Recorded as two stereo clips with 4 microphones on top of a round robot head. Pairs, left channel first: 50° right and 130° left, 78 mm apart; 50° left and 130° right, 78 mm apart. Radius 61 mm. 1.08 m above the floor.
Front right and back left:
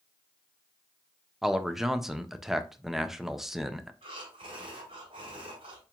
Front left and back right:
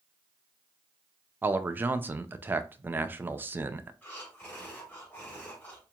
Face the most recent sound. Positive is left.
turn(degrees=120)